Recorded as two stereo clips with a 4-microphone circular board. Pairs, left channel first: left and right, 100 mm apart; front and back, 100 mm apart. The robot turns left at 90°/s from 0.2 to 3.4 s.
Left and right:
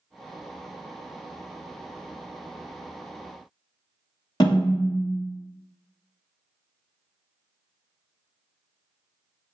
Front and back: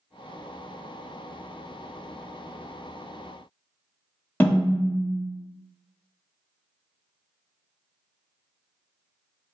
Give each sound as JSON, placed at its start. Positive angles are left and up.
{"t": 4.4, "sound": "a snare drum", "azimuth_deg": 65, "distance_m": 1.0}